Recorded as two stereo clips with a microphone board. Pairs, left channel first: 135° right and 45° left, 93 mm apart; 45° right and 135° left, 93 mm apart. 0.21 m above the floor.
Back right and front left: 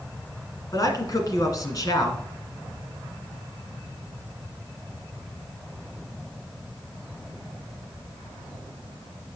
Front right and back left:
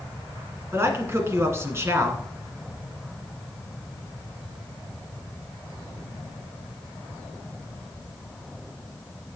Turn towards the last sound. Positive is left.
turn(degrees=-170)